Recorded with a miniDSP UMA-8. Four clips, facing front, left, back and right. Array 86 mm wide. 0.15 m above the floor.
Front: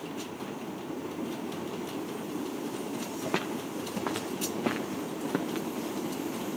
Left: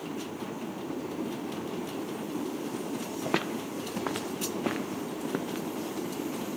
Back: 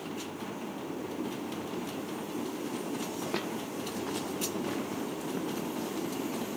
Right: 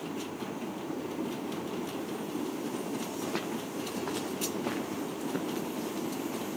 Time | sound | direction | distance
3.2 | footsteps | 75° left | 2.5 m